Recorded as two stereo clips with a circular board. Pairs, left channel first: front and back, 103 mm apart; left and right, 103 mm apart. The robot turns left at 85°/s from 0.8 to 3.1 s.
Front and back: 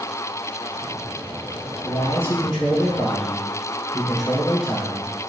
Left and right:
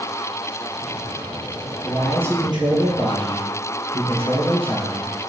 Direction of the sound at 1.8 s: 10° left.